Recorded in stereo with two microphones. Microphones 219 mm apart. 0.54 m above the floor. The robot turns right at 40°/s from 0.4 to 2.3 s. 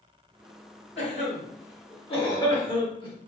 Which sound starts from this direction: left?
A cough, at 1.0 s.